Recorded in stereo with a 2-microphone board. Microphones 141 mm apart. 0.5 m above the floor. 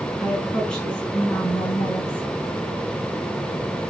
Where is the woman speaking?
5° left (ahead or behind), 6.5 m; by 2.4 s 10° left (ahead or behind), 7.5 m.